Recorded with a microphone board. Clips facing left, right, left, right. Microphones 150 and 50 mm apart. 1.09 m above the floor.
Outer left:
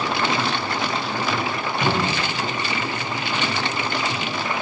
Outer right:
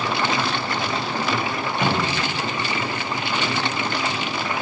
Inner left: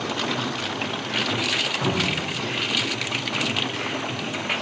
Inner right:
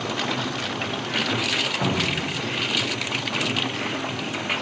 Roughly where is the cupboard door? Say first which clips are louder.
Outer left 1 dB, even; right.